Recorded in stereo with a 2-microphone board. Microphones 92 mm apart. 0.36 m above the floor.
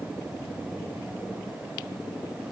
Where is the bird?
No bird in this recording.